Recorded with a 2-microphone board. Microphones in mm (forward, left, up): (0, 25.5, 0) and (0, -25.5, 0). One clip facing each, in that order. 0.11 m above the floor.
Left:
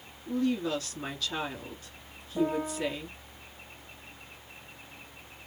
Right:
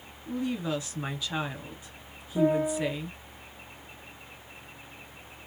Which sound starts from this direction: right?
A piano, at 2.4 s.